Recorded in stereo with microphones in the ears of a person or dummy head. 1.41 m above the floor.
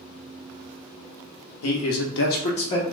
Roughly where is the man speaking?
Left.